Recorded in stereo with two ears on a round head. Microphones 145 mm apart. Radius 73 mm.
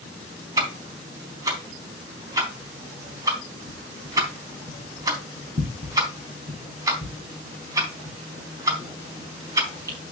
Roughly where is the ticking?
Right.